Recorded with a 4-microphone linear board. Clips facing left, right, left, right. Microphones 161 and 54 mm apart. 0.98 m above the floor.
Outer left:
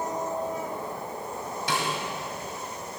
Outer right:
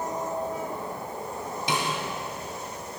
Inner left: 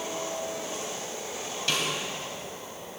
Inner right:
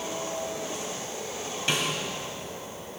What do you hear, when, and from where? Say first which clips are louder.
1.7 s a snare drum: outer right 1 dB, inner right 1 dB; 20° right (ahead or behind), 1.5 m